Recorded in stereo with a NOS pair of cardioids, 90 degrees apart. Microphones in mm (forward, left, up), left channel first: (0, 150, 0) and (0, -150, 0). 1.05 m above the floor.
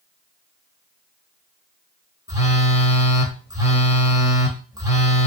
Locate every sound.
2.3 s a phone buzzing: 10° right, 0.9 m